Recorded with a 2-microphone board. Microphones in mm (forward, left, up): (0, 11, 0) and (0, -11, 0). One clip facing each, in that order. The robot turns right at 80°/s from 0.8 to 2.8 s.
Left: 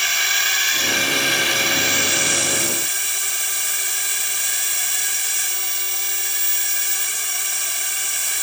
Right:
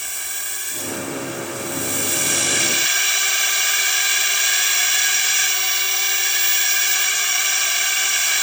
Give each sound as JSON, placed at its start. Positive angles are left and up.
{"t": 0.0, "sound": "a drone", "azimuth_deg": 50}